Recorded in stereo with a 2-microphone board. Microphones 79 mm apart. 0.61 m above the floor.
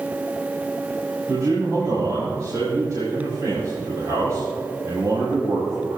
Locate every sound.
1.3 s a man speaking: 50° right (ahead or behind), 4 m